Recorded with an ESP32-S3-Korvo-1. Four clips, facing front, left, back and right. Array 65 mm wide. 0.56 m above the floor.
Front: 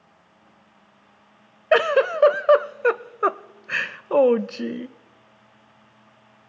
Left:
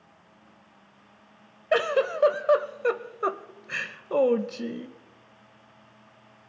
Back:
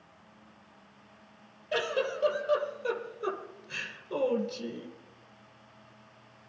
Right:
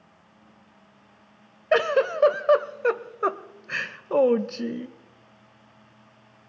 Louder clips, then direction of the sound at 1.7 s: Right 2 dB, front 13 dB; 10° right.